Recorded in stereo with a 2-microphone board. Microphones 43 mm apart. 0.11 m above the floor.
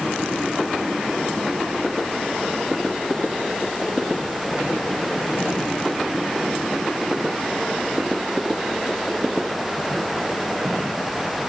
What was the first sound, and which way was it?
Only background noise.